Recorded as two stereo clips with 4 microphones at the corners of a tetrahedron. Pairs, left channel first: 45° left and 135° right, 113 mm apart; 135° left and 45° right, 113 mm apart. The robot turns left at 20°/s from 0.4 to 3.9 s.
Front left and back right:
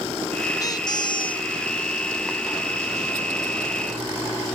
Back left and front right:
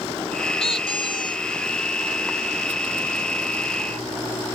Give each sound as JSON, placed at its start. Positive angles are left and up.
{"t": 0.6, "sound": "a squeak", "azimuth_deg": 100}